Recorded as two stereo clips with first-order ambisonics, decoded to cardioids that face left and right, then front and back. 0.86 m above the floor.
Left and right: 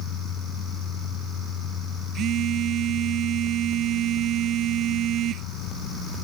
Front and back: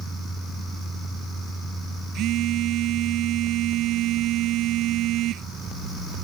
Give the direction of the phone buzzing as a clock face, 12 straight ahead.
5 o'clock.